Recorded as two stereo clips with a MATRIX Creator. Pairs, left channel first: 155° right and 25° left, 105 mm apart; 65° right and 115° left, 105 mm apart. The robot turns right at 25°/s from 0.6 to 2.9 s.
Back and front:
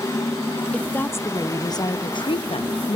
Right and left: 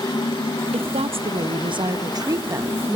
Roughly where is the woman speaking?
Behind left.